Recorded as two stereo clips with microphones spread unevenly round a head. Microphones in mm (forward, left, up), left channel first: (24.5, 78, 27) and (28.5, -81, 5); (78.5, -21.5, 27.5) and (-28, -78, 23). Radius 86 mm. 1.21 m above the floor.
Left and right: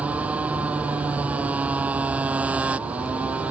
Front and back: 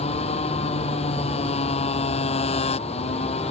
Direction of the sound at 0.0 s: 5° right.